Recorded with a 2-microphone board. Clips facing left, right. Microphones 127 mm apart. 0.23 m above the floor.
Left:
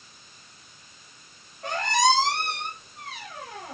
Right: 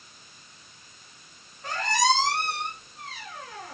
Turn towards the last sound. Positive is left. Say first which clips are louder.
# left 2 dB
turn(degrees=75)  # may be behind; listen again after turning